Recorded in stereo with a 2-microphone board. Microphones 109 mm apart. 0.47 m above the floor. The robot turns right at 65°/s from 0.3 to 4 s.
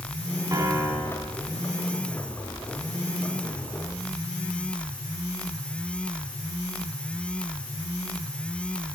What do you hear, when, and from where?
0.5 s a piano: 35° right, 2.0 m; by 1.4 s 25° left, 2.0 m